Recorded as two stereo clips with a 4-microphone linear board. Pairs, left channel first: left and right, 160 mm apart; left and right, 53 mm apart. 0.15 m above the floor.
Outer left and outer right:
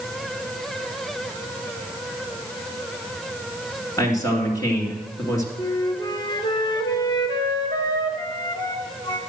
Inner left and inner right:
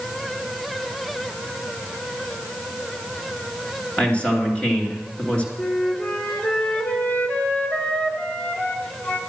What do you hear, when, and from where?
4.0 s a man speaking: 20° left (ahead or behind), 2.5 m
5.6 s a flute: 30° left (ahead or behind), 1.5 m